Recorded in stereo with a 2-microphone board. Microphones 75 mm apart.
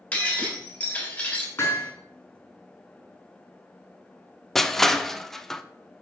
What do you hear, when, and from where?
0.1 s breaking glass: 15° left (ahead or behind), 3.5 m
1.6 s hammering: 35° left (ahead or behind), 5 m
4.5 s crushing: 5° left (ahead or behind), 0.6 m